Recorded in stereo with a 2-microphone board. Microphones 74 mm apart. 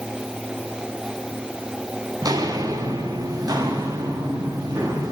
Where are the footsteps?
55° right (ahead or behind), 1.8 m.